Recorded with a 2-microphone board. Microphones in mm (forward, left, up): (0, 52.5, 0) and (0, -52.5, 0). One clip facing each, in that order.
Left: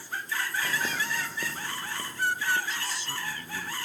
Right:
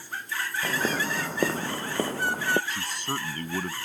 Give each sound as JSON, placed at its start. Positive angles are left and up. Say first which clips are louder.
{"t": 0.6, "sound": "footsteps", "louder": "right 4 dB", "side_deg": -30}
{"t": 2.7, "sound": "a man speaking", "louder": "right 3 dB", "side_deg": -55}